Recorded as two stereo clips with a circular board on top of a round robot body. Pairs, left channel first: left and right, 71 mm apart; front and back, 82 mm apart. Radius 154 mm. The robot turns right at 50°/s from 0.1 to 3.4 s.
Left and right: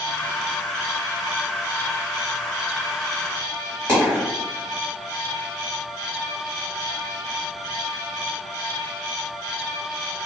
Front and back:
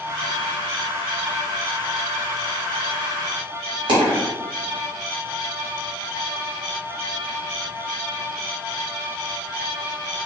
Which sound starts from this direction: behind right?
A dropped coin, at 3.9 s.